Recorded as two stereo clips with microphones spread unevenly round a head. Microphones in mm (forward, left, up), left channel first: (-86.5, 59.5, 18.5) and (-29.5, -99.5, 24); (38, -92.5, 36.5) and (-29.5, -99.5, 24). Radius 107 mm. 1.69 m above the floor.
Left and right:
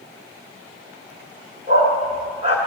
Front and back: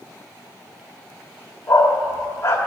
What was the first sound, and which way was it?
A dog barking, 15° right.